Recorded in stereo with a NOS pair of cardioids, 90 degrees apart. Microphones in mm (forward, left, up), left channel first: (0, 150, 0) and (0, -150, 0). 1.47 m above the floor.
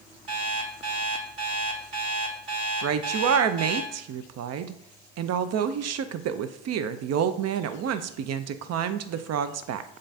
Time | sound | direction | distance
0.3 | an alarm clock | 50° right | 2 m
2.8 | a woman speaking | 60° right | 0.5 m